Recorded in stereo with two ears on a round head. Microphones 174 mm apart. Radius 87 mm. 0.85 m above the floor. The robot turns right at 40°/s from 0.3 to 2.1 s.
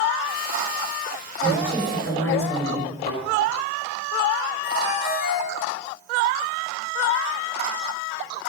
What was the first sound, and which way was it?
A woman speaking, 40° left (ahead or behind).